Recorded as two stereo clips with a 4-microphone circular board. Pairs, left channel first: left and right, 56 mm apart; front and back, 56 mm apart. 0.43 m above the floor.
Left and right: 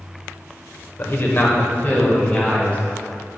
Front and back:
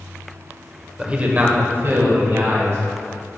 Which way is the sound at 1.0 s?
110° left.